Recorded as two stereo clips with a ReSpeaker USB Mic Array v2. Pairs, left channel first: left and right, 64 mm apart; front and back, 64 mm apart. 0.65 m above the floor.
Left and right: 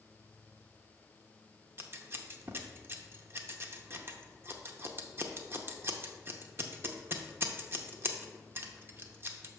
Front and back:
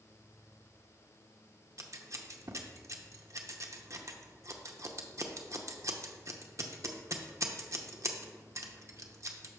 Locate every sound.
1.8 s scissors: 140° right, 0.6 m